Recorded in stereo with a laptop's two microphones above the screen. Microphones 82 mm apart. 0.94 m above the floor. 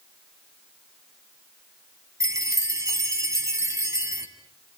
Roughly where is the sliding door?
No sliding door in this recording.